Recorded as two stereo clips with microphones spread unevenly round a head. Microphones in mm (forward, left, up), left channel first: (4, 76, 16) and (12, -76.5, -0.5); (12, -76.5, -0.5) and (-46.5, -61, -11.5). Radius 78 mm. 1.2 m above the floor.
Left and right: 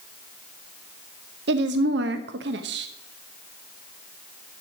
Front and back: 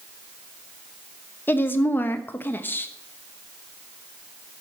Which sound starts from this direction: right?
A woman speaking, at 1.5 s.